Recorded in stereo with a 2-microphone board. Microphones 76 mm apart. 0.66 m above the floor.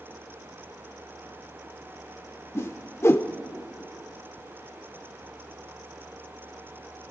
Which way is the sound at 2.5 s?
40° left (ahead or behind).